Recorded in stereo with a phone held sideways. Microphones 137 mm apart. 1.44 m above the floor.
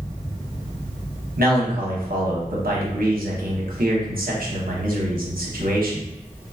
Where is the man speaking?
85° right, 1.0 m.